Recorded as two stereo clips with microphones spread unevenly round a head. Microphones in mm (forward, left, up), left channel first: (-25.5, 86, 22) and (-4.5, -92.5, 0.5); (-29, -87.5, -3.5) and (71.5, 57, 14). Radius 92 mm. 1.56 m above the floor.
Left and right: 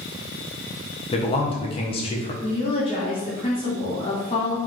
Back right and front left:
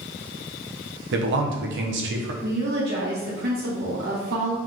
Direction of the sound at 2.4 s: 40° left.